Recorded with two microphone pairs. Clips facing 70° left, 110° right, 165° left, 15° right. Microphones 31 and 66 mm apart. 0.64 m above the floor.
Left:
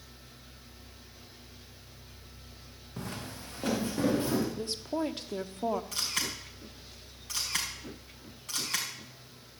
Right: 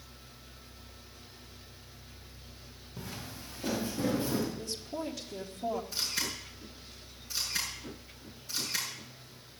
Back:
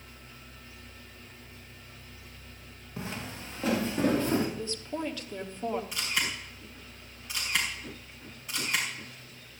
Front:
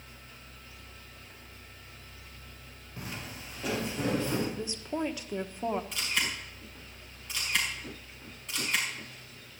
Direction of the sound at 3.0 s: 100° left.